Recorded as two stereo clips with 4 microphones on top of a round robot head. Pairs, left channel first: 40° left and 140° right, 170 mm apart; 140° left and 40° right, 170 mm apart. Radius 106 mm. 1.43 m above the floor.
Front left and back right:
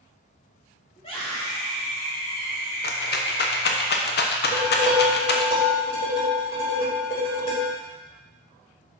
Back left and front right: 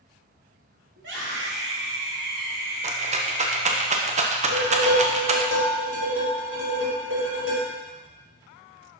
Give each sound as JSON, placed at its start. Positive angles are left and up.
{"t": 1.0, "sound": "a scream", "azimuth_deg": -20, "distance_m": 3.5}
{"t": 2.8, "sound": "a rattle", "azimuth_deg": 10, "distance_m": 0.9}
{"t": 4.4, "sound": "dishes clattering", "azimuth_deg": -20, "distance_m": 4.0}